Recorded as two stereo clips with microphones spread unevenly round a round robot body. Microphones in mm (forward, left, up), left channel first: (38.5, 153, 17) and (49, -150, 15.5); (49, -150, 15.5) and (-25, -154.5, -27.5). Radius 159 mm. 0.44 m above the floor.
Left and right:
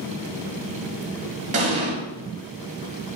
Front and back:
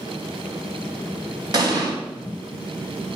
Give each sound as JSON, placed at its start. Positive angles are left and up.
{"t": 1.5, "sound": "an explosion", "azimuth_deg": -155, "distance_m": 1.7}